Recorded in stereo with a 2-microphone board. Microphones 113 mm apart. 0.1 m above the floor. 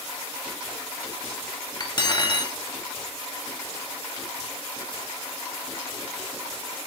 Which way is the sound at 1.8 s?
40° left (ahead or behind).